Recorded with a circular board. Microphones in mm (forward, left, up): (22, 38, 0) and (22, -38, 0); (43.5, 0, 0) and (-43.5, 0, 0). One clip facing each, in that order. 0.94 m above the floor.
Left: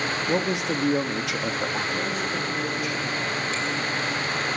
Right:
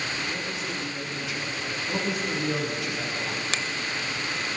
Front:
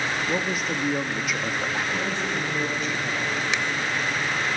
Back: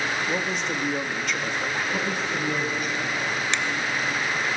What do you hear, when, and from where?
0.3 s a man speaking: 85° left, 1.2 m
1.9 s a man speaking: 100° right, 9 m
3.5 s a finger snap: 85° right, 0.6 m